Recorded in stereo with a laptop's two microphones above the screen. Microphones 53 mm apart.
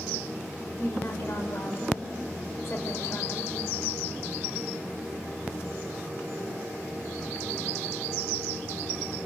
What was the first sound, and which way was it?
A woman speaking, 50° left (ahead or behind).